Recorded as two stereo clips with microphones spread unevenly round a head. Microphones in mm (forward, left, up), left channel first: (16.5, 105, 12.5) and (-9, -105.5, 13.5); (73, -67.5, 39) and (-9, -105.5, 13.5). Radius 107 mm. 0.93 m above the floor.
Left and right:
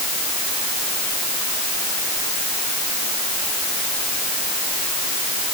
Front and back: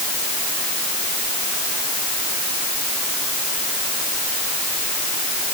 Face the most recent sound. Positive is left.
No sound to turn to.